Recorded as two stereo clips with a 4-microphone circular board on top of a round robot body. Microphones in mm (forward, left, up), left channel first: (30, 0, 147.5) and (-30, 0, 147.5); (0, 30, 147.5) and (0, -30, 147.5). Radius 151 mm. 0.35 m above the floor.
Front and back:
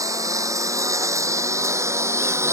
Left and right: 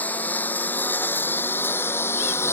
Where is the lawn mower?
155° left; by 2.5 s 140° left.